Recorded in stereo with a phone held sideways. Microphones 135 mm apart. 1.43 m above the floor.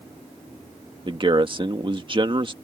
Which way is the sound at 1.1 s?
40° right (ahead or behind).